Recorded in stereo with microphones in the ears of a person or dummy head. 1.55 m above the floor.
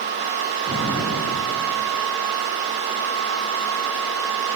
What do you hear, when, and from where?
0.7 s an explosion: 30° right (ahead or behind), 6 m